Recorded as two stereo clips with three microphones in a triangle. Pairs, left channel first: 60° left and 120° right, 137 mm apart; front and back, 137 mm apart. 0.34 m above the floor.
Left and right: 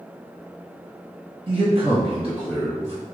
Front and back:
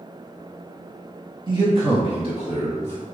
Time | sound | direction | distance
1.5 | a man speaking | 145° right | 1.6 m